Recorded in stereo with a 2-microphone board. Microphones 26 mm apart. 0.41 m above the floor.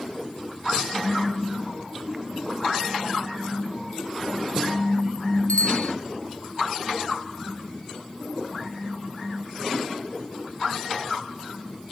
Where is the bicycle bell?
80° left.